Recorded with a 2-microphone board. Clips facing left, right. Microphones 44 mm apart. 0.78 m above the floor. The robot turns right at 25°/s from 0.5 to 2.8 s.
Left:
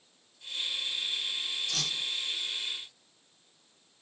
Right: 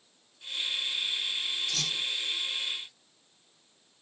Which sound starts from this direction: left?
A whoosh, at 1.7 s.